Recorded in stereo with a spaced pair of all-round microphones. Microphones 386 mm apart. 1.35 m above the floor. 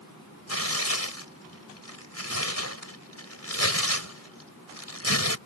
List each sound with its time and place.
0.5 s tearing paper: 40° left (ahead or behind)